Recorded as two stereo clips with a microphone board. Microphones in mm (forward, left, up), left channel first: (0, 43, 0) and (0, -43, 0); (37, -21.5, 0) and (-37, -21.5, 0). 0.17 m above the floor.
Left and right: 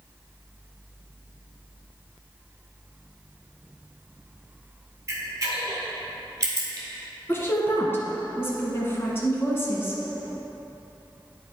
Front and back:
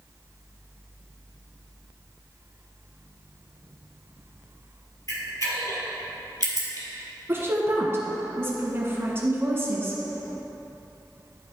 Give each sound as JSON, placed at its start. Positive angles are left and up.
{"t": 5.1, "sound": "a camera shutter", "azimuth_deg": -35, "distance_m": 2.0}
{"t": 7.3, "sound": "a woman speaking", "azimuth_deg": 140, "distance_m": 1.6}